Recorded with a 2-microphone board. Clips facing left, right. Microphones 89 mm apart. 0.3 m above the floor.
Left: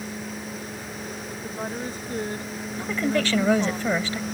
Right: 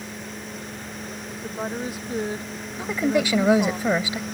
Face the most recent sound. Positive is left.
turn(degrees=-15)  # may be behind; listen again after turning